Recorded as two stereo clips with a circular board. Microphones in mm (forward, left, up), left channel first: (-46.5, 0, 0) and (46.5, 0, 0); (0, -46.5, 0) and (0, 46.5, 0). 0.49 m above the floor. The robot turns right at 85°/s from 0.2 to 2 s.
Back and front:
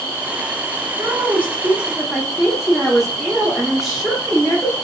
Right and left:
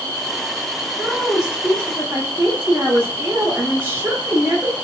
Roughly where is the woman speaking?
Ahead.